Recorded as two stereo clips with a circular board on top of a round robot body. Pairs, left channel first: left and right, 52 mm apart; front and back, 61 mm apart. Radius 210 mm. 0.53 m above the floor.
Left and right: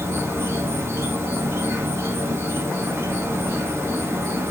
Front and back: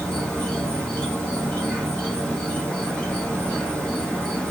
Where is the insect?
75° right, 2.5 m.